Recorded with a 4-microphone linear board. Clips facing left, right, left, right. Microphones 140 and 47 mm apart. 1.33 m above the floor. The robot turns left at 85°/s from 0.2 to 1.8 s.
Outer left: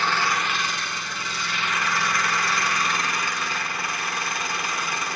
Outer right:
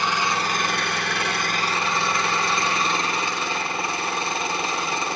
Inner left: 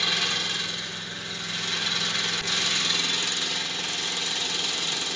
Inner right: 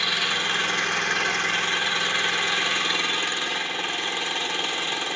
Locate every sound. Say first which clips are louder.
0.0 s an engine running: outer right 1 dB, inner right 3 dB; 15° right, 1.1 m; by 5.2 s 150° right, 1.1 m